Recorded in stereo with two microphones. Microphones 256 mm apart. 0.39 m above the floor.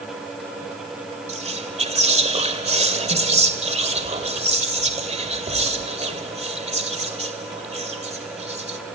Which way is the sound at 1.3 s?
25° right (ahead or behind).